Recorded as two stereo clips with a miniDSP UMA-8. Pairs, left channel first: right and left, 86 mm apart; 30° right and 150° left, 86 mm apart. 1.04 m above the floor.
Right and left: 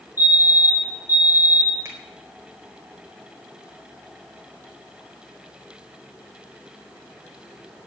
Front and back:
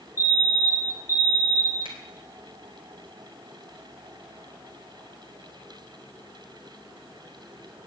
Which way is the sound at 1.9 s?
150° left.